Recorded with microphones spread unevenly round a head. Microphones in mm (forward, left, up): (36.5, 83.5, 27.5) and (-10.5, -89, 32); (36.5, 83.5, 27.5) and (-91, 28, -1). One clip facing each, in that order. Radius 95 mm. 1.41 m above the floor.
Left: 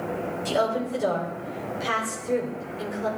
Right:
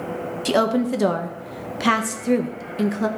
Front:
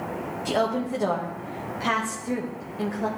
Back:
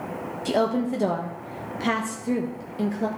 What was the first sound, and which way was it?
A woman speaking, 90° right.